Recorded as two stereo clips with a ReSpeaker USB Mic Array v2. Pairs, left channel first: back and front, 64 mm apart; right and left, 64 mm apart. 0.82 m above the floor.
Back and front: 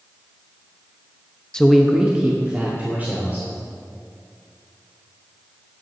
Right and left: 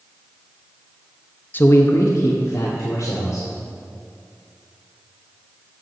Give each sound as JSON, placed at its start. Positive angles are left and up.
{"t": 1.5, "sound": "a man speaking", "azimuth_deg": -115, "distance_m": 0.6}